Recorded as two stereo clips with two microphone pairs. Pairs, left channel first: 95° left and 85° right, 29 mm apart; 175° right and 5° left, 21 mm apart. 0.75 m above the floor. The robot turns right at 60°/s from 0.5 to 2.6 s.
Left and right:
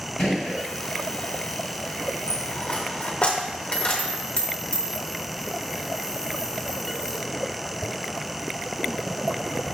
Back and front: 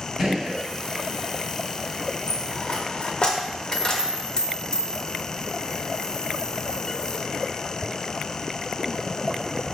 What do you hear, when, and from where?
0.2 s a gunshot: 60° left, 1.3 m; by 0.6 s 70° left, 1.3 m
2.3 s a dropped coin: 120° left, 0.6 m; by 7.4 s 140° left, 0.6 m